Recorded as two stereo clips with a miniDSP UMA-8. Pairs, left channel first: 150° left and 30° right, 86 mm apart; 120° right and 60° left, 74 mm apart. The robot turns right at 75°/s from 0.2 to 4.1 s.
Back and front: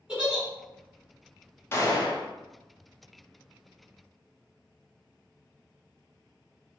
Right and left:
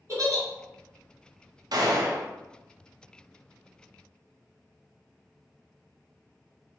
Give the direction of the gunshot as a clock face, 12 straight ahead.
9 o'clock.